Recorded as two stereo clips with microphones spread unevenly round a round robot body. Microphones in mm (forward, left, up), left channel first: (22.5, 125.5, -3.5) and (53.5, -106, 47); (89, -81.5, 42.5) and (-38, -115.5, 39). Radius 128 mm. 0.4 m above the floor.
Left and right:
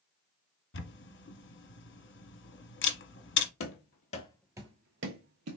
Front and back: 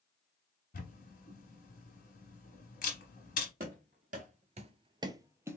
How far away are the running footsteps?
About 0.8 m.